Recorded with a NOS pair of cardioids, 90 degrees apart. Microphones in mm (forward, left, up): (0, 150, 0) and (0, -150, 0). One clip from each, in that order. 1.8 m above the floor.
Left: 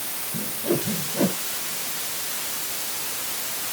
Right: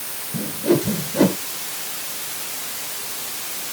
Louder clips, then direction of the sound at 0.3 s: Right 7 dB; 40° right.